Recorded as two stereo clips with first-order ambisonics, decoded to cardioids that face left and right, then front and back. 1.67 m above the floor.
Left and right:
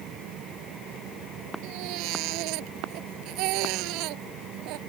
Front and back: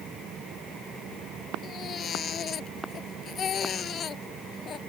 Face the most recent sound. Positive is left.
turn(degrees=-60)